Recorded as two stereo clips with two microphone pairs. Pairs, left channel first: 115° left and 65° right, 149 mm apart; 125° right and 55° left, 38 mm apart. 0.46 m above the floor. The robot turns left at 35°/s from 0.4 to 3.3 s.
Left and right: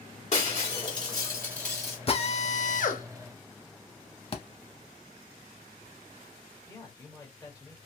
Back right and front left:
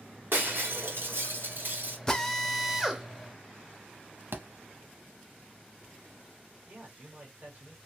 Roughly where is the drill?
Behind.